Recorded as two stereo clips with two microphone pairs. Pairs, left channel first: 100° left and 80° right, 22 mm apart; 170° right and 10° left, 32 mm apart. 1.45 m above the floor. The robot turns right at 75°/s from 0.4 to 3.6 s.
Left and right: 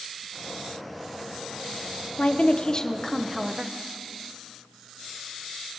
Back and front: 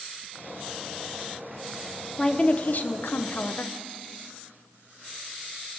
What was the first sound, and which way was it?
A woman speaking, 115° left.